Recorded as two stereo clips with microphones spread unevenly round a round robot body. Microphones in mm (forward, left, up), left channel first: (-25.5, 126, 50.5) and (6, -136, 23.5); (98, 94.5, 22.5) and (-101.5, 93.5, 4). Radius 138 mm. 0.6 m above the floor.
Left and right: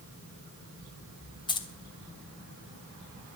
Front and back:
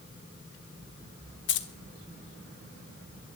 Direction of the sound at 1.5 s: 20° left.